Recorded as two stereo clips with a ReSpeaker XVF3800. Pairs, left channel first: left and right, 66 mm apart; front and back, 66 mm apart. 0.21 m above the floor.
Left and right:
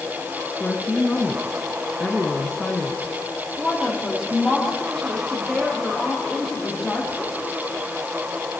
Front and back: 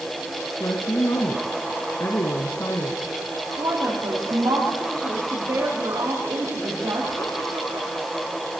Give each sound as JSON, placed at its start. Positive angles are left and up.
{"t": 0.6, "sound": "a woman speaking", "azimuth_deg": 10, "distance_m": 2.0}
{"t": 3.6, "sound": "a woman speaking", "azimuth_deg": 180, "distance_m": 6.5}